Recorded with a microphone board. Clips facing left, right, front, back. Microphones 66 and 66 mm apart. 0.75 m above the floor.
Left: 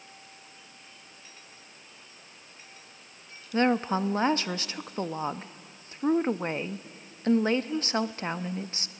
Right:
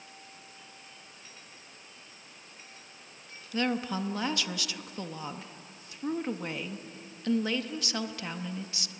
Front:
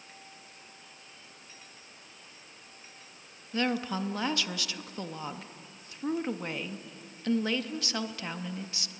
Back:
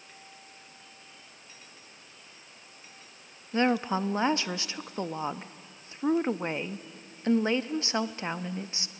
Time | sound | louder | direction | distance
3.5 | a woman speaking | left 6 dB, back 4 dB | 130° left | 0.6 m